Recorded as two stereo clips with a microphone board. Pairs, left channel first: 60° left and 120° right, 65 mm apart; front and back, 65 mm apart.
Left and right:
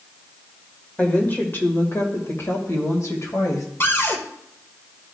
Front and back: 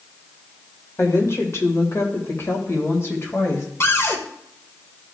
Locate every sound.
1.0 s a woman speaking: straight ahead, 1.8 m; by 3.7 s 45° left, 2.5 m
3.8 s a cupboard door: 25° left, 1.2 m